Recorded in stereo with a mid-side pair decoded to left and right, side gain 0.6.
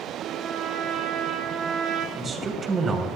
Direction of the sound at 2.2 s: 30° right.